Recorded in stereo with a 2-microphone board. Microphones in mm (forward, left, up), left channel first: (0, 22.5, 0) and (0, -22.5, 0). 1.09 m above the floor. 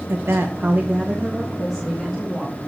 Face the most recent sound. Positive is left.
turn(degrees=5)  # may be behind; listen again after turning